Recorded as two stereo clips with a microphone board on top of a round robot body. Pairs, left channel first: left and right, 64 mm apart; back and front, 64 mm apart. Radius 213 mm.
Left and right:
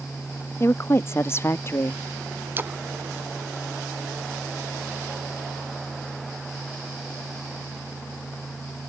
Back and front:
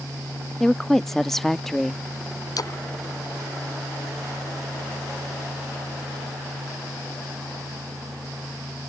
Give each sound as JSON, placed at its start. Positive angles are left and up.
{"t": 0.6, "sound": "a woman speaking", "azimuth_deg": 100}
{"t": 2.6, "sound": "a splash", "azimuth_deg": -150}